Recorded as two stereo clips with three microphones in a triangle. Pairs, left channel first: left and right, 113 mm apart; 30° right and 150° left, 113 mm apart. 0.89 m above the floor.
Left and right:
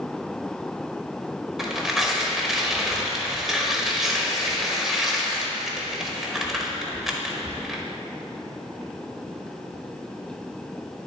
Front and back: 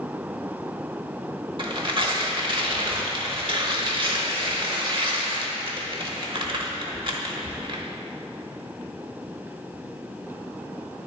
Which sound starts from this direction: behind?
Tearing paper, at 1.6 s.